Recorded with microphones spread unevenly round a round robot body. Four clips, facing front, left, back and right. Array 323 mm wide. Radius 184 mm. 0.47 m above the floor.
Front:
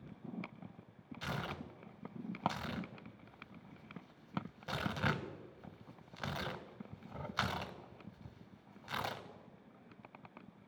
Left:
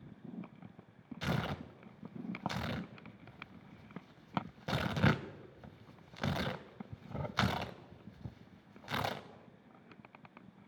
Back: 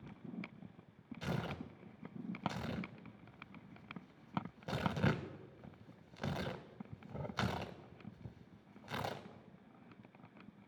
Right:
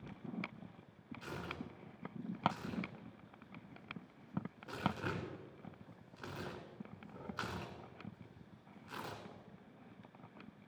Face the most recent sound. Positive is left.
turn(degrees=90)